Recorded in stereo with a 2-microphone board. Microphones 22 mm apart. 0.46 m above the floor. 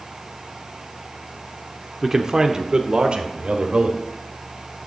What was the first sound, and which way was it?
A man speaking, 15° right (ahead or behind).